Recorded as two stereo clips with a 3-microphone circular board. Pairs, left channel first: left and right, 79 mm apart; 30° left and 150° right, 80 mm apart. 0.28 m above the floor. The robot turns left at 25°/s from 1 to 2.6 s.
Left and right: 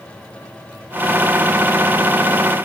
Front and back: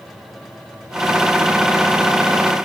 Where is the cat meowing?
I don't hear a cat meowing.